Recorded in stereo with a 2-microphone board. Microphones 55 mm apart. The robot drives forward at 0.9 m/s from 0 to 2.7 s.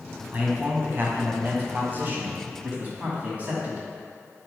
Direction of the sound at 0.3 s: 30° right (ahead or behind).